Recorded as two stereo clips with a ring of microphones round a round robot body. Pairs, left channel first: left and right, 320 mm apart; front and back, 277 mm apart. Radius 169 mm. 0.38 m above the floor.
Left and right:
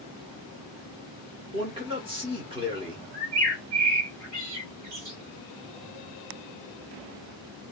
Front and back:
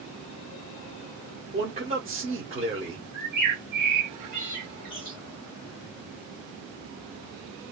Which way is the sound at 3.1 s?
95° right.